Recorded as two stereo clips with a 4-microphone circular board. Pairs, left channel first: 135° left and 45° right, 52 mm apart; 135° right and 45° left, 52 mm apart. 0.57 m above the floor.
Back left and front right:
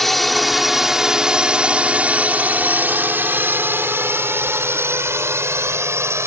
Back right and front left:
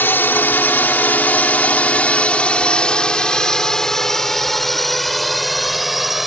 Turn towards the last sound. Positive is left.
turn(degrees=-40)